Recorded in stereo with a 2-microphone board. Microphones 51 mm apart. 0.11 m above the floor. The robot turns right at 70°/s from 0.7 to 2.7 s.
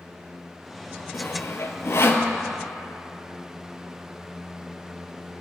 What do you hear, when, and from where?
1.1 s sawing: 45° left (ahead or behind), 0.6 m